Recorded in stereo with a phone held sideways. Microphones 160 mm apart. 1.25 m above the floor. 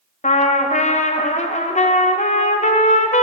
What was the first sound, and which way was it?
A trumpet, 50° left (ahead or behind).